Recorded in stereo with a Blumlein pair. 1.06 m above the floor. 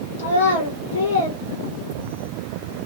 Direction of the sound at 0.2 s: 65° left.